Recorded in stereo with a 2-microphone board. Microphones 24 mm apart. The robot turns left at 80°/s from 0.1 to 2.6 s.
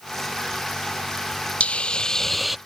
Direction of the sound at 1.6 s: 70° left.